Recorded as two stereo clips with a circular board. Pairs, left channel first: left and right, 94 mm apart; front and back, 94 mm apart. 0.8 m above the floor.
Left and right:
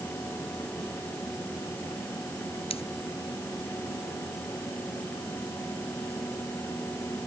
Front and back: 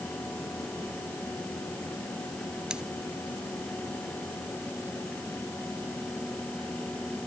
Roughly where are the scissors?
Left.